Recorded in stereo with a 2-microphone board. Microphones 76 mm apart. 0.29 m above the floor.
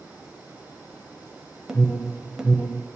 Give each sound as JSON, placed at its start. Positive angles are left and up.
{"t": 1.7, "sound": "an alarm", "side_deg": -10, "distance_m": 0.9}